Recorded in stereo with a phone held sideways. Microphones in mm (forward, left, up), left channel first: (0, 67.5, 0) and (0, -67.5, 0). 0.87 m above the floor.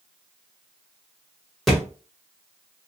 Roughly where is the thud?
Centre.